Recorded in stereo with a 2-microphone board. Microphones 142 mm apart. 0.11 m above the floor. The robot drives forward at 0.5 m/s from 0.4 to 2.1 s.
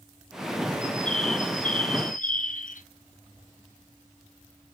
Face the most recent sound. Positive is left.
turn(degrees=70)  # may be behind; listen again after turning